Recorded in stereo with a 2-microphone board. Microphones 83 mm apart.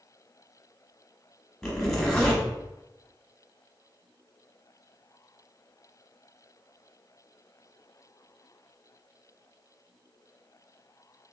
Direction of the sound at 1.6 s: 5° left (ahead or behind).